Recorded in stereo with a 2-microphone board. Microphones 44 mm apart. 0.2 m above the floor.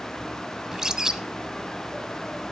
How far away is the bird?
About 0.9 m.